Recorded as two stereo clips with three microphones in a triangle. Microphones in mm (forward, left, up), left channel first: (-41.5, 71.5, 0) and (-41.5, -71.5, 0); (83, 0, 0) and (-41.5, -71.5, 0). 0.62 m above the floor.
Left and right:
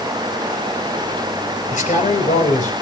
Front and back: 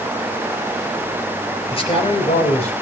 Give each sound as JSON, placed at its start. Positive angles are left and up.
{"t": 1.7, "sound": "a man speaking", "azimuth_deg": 75, "distance_m": 3.5}